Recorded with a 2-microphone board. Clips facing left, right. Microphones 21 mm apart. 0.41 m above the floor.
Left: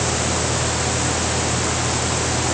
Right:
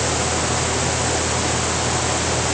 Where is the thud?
No thud in this recording.